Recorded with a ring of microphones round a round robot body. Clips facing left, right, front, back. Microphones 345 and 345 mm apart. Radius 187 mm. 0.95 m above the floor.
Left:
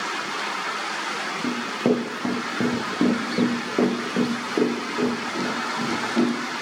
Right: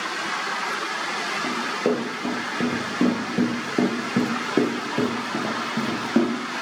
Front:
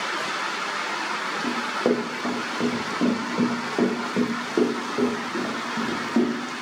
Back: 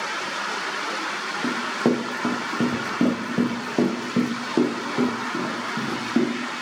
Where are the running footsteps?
130° left, 1.5 m; by 6.3 s 110° right, 2 m.